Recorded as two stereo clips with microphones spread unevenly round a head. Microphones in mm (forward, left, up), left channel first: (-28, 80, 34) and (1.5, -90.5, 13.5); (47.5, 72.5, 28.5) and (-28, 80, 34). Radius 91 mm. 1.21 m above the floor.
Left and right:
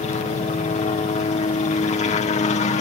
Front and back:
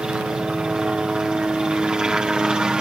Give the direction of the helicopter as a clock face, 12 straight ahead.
9 o'clock.